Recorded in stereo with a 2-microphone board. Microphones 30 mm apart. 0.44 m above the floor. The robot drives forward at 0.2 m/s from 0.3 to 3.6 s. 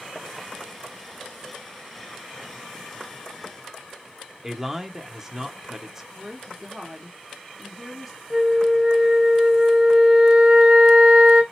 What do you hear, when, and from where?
4.4 s a man speaking: 15° right (ahead or behind), 0.7 m
6.1 s a woman speaking: 5° left (ahead or behind), 0.8 m
8.3 s a flute: 40° right (ahead or behind), 1.6 m